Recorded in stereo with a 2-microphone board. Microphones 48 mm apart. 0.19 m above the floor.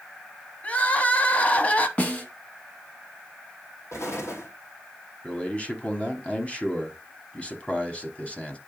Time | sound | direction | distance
0.6 | crying | 30° left (ahead or behind) | 0.9 m
2.0 | a snare drum | 30° left (ahead or behind) | 1.5 m
3.9 | an explosion | 85° left | 2.5 m
5.2 | a man speaking | 25° left (ahead or behind) | 1.3 m